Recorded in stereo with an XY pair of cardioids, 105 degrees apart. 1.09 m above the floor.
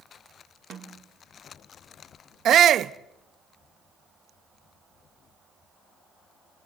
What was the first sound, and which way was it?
A snare drum, 55° right.